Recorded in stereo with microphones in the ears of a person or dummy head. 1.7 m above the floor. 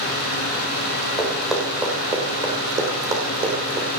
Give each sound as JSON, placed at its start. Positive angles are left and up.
{"t": 1.2, "sound": "running footsteps", "side_deg": 0, "distance_m": 4.5}